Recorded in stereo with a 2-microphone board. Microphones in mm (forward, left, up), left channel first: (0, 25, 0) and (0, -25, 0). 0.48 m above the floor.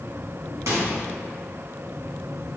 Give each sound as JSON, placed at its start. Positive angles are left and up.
{"t": 0.7, "sound": "a microwave", "side_deg": -80, "distance_m": 3.0}